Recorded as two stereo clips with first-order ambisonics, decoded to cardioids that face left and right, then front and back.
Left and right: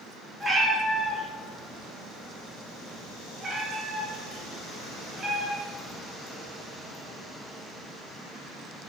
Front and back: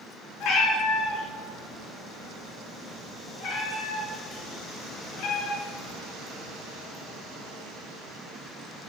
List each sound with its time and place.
0.4 s a cat meowing: 15° right, 0.8 m